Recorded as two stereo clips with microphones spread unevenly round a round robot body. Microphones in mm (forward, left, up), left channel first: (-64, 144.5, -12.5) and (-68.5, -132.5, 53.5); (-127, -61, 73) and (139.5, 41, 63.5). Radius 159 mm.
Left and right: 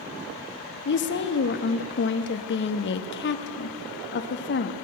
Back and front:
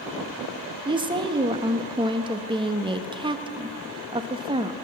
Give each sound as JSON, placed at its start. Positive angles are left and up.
{"t": 0.8, "sound": "a woman speaking", "azimuth_deg": 90, "distance_m": 1.0}